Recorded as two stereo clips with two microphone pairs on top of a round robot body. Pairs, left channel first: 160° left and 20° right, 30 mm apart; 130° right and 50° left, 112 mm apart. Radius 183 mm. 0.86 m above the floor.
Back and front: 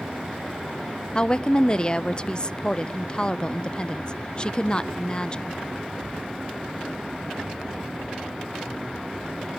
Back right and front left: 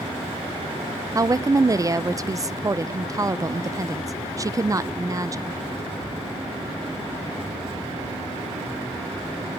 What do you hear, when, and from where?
1.1 s a woman speaking: 105° left, 0.6 m